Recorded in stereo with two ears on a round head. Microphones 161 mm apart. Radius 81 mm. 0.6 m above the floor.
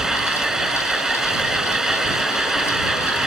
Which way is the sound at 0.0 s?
5° right (ahead or behind).